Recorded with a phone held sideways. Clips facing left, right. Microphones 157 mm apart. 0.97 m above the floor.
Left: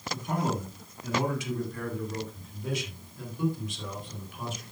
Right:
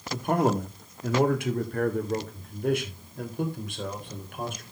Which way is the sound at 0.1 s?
60° right (ahead or behind).